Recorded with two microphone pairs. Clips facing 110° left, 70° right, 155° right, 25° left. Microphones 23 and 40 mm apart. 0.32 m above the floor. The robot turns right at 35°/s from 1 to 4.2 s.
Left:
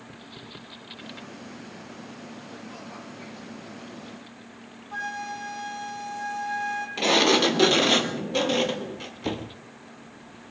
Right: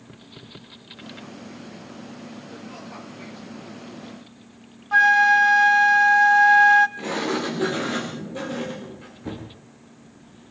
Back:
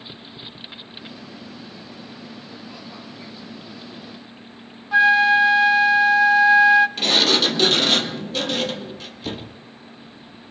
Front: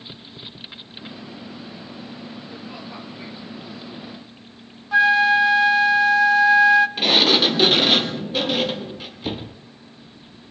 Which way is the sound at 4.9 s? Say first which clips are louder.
Right 18 dB, back 1 dB; 75° right.